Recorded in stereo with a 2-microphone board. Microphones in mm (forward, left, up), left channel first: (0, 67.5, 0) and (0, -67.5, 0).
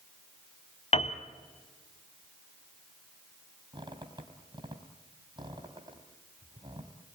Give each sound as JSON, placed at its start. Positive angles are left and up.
{"t": 0.9, "sound": "a piano", "side_deg": 50, "distance_m": 1.3}
{"t": 3.7, "sound": "a squeak", "side_deg": -35, "distance_m": 3.5}